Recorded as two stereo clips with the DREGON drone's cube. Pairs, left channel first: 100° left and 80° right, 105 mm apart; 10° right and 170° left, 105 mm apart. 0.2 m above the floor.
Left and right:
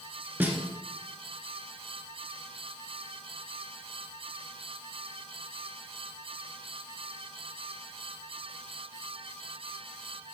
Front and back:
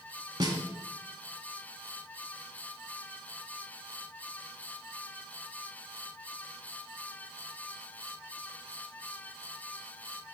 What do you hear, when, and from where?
0.4 s a snare drum: 145° right, 1.3 m